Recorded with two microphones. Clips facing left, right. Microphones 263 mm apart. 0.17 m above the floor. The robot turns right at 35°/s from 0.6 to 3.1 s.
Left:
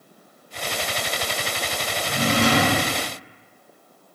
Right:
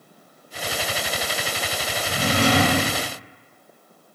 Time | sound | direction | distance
2.0 | a drawer | 65° left | 1.0 m